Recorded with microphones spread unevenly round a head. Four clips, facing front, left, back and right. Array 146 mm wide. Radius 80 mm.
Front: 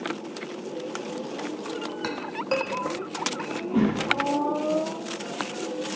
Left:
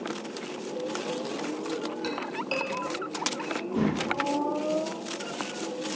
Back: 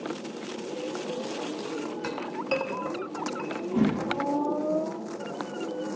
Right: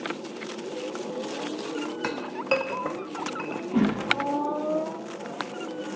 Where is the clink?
55° right, 0.5 m.